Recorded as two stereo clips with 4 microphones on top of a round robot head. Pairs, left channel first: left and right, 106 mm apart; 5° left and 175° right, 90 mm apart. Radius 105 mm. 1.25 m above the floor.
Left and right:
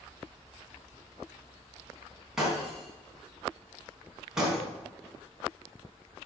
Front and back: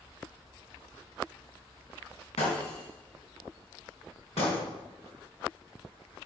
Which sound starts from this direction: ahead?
Breaking glass, at 2.4 s.